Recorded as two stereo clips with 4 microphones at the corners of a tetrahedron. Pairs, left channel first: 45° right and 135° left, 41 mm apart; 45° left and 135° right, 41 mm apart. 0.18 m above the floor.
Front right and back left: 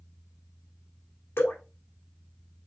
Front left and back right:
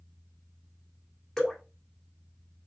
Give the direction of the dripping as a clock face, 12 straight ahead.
1 o'clock.